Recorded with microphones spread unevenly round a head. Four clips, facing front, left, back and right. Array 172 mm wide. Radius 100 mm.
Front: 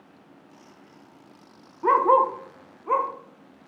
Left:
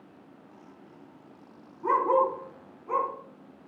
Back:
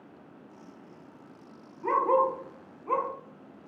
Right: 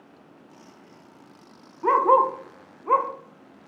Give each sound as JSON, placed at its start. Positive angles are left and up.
{"t": 1.8, "sound": "a dog barking", "azimuth_deg": -35, "distance_m": 1.5}